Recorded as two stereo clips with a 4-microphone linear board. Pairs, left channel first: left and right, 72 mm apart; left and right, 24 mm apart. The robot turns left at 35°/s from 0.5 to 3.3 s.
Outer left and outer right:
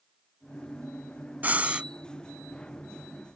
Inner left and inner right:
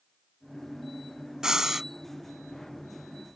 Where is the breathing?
25° right (ahead or behind); by 1.9 s 15° right (ahead or behind).